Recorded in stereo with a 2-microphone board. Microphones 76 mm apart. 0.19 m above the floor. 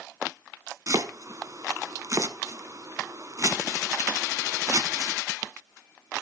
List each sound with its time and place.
0.9 s chopping: 45° right (ahead or behind), 0.9 m